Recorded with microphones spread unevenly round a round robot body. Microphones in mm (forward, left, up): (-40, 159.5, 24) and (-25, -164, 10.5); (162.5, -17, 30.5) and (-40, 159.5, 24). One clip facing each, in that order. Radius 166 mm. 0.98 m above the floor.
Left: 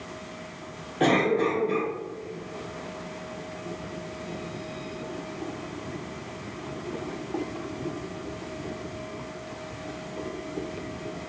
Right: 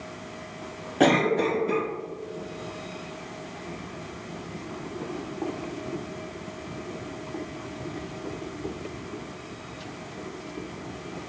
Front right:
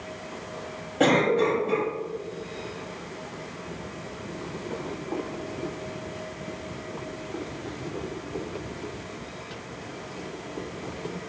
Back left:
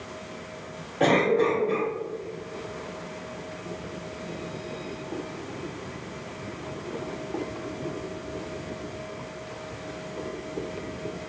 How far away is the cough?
About 1.5 m.